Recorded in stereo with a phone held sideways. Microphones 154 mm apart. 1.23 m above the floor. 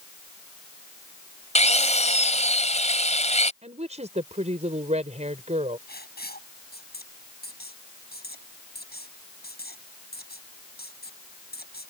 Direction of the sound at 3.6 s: 45° right (ahead or behind).